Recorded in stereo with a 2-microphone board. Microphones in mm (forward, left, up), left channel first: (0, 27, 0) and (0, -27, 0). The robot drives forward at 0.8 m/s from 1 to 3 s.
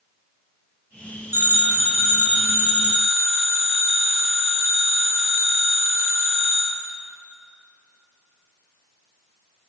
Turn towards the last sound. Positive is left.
turn(degrees=-25)  # may be behind; listen again after turning